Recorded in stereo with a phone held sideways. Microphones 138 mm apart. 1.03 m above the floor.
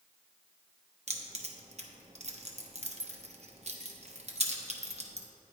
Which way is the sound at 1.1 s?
50° right (ahead or behind).